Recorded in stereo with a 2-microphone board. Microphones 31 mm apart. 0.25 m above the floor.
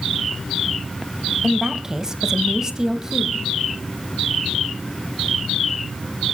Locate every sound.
1.4 s a woman speaking: 15° right (ahead or behind), 1.2 m